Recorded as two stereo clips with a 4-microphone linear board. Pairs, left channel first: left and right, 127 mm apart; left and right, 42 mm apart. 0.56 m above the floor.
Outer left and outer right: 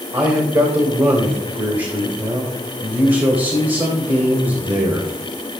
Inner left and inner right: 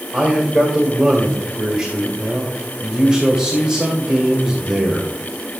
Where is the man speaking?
35° right (ahead or behind), 2 m.